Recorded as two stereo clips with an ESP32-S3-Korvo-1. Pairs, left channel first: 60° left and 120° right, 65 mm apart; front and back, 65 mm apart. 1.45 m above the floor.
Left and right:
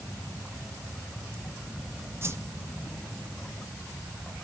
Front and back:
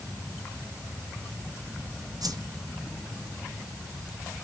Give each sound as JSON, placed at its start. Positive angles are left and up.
{"t": 2.2, "sound": "a whoosh", "azimuth_deg": -170, "distance_m": 0.9}